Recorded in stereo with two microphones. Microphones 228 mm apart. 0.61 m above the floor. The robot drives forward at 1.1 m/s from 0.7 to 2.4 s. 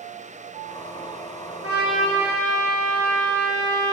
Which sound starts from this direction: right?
A trumpet, at 1.6 s.